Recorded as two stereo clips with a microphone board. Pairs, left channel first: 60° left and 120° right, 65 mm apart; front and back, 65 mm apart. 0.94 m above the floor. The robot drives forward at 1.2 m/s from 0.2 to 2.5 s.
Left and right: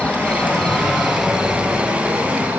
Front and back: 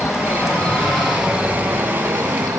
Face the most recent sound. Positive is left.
turn(degrees=180)